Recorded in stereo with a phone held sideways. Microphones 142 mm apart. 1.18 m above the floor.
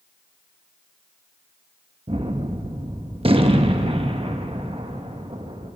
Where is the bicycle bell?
No bicycle bell in this recording.